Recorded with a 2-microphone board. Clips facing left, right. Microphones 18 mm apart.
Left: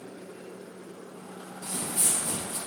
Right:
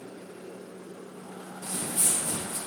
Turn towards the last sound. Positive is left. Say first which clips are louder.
# even
turn(degrees=30)  # may be behind; listen again after turning